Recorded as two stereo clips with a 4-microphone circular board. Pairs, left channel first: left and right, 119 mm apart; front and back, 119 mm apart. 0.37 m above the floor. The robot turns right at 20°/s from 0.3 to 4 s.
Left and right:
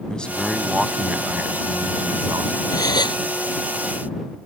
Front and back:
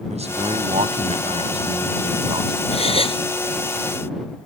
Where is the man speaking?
170° left; by 2.6 s 140° right.